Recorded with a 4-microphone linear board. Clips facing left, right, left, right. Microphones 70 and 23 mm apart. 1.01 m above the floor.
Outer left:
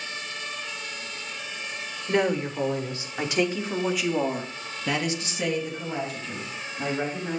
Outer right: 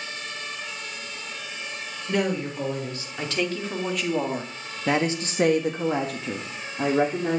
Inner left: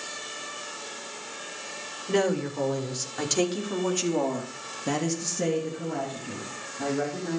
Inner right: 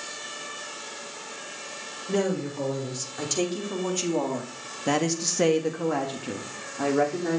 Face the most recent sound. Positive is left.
turn(degrees=-75)  # may be behind; listen again after turning